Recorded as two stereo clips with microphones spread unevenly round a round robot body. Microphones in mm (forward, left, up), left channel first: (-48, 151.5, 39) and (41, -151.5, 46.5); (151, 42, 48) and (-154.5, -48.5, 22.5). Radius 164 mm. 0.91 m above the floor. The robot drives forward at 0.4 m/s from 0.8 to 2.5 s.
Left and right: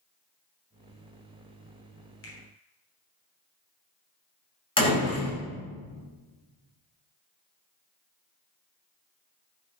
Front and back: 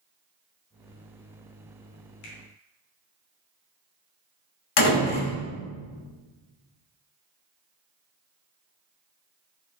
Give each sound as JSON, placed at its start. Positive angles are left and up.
{"t": 2.2, "sound": "a finger snap", "azimuth_deg": 55, "distance_m": 3.0}
{"t": 4.8, "sound": "a door slam", "azimuth_deg": 30, "distance_m": 4.5}